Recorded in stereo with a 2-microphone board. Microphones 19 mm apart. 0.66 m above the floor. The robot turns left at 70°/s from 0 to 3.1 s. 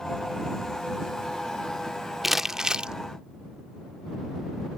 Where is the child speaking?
I don't hear a child speaking.